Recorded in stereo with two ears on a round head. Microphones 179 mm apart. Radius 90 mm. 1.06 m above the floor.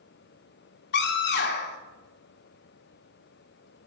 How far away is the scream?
About 3 m.